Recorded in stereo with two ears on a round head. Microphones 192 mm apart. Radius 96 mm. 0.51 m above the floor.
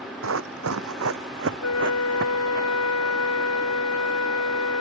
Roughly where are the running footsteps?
Right.